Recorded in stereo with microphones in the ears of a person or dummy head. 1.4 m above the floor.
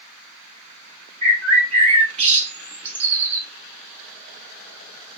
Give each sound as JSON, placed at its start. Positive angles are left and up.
{"t": 1.2, "sound": "a bird", "side_deg": -35, "distance_m": 0.7}